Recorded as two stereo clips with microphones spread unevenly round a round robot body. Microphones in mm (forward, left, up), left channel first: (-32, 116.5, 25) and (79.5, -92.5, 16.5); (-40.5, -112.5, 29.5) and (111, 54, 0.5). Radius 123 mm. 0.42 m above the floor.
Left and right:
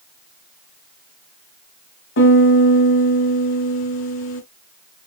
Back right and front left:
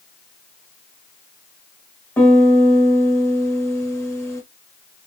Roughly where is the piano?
Behind left.